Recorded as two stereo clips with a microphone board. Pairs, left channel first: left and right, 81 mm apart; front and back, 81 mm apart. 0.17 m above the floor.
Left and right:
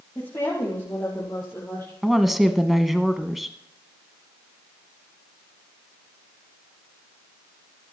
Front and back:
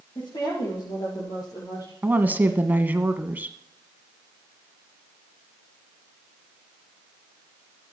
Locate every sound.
0.1 s a woman speaking: 25° left, 5.5 m; by 1.9 s 35° left, 3.5 m
2.0 s a woman speaking: 175° right, 1.0 m